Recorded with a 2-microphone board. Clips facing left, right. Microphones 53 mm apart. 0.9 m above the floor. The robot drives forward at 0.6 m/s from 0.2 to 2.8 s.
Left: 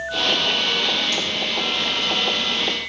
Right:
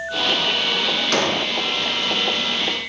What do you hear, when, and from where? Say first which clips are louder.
1.1 s an explosion: right 5 dB; 65° right (ahead or behind), 1.2 m; by 1.5 s 60° right (ahead or behind), 1.2 m